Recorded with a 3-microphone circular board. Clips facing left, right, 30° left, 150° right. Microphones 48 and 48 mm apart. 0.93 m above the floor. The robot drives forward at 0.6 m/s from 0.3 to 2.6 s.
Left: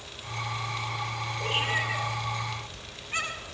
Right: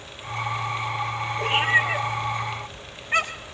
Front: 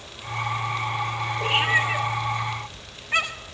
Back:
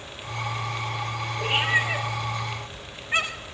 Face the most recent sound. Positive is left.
turn(degrees=-75)